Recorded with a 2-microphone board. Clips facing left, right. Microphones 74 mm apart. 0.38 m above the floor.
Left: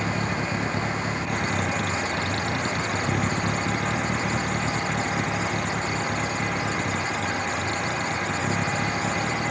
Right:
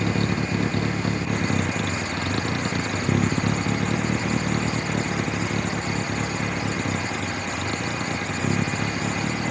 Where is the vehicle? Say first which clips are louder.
Right 2 dB; 75° right (ahead or behind); by 9.5 s 85° right.